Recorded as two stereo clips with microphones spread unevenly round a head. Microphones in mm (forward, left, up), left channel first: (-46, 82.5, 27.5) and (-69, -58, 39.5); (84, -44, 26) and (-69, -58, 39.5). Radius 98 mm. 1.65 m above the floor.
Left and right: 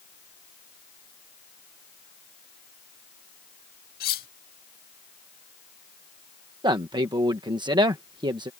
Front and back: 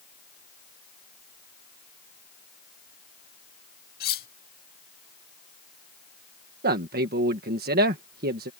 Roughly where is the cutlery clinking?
Ahead left.